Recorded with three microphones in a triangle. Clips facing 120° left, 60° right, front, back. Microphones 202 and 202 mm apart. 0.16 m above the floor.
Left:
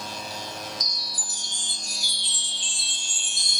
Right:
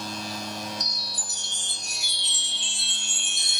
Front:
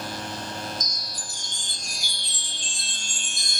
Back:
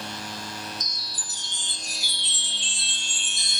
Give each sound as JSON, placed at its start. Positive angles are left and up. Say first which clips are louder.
{"t": 0.8, "sound": "a chime", "louder": "right 2 dB, front 3 dB", "azimuth_deg": -40, "distance_m": 0.7}